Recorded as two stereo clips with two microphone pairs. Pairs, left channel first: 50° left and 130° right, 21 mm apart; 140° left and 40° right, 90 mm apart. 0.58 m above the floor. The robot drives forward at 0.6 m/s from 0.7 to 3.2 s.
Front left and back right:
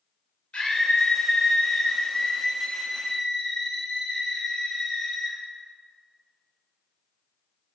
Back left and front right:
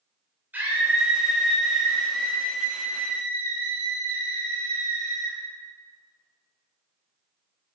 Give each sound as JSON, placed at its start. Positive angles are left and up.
{"t": 0.5, "sound": "a scream", "azimuth_deg": 30, "distance_m": 1.6}